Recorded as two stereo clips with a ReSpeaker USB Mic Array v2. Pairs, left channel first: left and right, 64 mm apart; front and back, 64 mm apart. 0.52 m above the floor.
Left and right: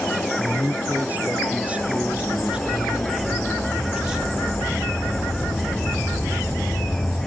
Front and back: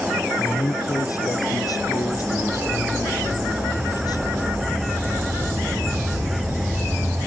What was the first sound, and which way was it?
A man speaking, 25° right.